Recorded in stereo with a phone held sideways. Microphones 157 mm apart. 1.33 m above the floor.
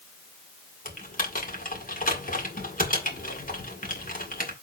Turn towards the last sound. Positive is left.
turn(degrees=60)  # may be behind; listen again after turning